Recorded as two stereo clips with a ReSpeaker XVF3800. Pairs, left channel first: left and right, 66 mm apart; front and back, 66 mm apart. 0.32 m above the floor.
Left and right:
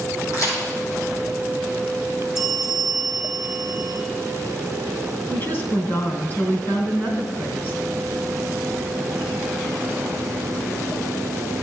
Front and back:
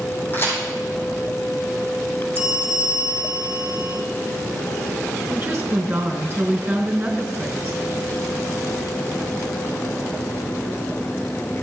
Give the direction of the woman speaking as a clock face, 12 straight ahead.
7 o'clock.